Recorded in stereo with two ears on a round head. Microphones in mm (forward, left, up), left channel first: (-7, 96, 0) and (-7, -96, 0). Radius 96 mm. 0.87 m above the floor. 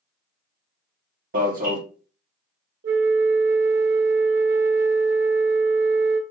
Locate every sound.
1.3 s an alarm: 40° right (ahead or behind), 1.9 m
2.8 s a flute: 50° right (ahead or behind), 0.6 m